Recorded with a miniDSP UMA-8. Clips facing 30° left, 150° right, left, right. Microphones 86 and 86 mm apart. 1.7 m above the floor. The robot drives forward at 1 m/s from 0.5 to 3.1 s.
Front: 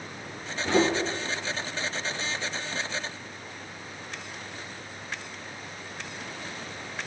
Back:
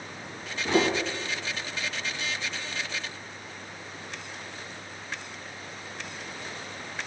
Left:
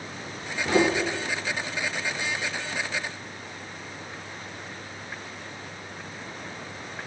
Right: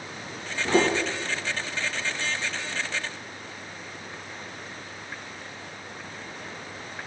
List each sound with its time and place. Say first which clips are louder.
0.6 s footsteps: front 1 dB, even; 55° right, 2 m; by 0.9 s 70° right, 2 m